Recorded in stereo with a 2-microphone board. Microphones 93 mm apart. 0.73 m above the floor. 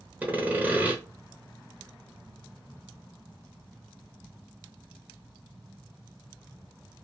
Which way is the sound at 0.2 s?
15° right (ahead or behind).